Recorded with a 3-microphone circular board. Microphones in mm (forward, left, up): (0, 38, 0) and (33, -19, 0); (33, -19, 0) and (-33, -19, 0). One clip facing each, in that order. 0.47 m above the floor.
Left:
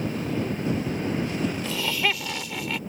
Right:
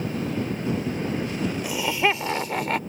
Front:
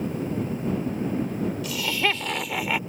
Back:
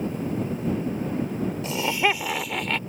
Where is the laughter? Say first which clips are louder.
Right 3 dB, back 5 dB; 130° right; by 2.8 s 70° right.